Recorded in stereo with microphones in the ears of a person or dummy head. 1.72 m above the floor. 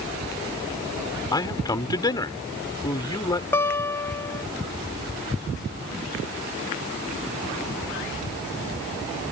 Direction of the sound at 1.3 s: 25° left (ahead or behind).